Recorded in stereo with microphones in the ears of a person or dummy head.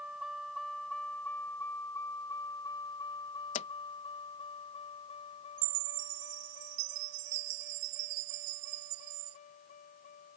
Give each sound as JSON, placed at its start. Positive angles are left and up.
{"t": 0.0, "sound": "a vehicle", "side_deg": -5}
{"t": 3.5, "sound": "a pop", "side_deg": 45}
{"t": 5.6, "sound": "a chime", "side_deg": -85}